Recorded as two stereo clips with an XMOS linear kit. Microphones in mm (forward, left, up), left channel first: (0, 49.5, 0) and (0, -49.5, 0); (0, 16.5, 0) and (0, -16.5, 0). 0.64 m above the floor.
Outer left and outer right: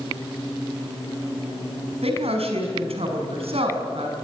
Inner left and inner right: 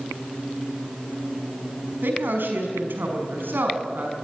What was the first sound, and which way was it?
A woman speaking, 80° right.